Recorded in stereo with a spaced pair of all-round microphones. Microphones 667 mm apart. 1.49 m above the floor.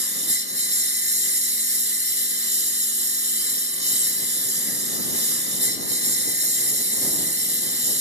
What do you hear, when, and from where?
0.0 s a lawn mower: 35° right (ahead or behind)